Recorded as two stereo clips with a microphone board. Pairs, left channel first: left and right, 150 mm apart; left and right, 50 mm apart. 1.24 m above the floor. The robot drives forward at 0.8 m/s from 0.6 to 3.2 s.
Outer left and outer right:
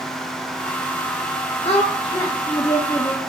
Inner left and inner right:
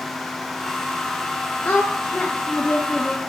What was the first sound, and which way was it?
A woman speaking, 45° left (ahead or behind).